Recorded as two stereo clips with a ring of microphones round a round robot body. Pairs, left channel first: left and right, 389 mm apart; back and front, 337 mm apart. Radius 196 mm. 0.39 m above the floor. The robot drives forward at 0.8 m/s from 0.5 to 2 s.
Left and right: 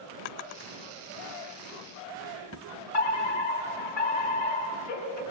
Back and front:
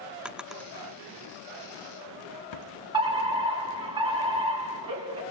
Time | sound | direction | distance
0.2 | a drawer | 90° left | 0.8 m
2.9 | a fire alarm | 75° left | 7 m